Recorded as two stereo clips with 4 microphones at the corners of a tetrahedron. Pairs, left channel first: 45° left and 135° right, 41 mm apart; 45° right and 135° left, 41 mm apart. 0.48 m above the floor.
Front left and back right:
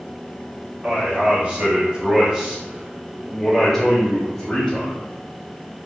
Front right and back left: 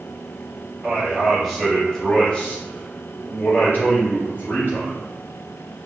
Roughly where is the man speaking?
Behind right.